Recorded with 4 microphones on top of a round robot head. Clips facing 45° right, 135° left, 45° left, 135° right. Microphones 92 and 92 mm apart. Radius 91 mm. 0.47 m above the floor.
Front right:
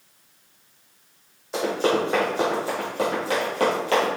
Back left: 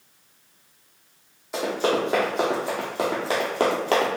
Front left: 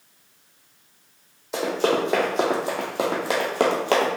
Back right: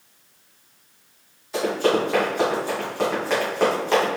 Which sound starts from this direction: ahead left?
Running footsteps, at 1.5 s.